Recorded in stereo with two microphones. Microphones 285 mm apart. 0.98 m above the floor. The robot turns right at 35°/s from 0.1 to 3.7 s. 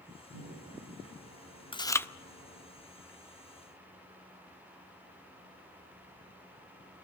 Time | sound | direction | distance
0.3 | a microwave | 110° right | 8 m
1.7 | chewing | 20° left (ahead or behind) | 0.5 m